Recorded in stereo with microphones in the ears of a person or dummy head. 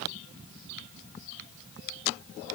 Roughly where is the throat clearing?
No throat clearing in this recording.